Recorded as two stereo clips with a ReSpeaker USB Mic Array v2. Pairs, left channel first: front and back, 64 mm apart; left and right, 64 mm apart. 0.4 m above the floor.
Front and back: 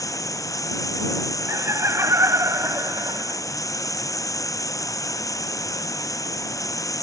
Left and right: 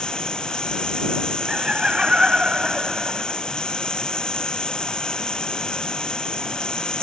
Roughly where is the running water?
Ahead.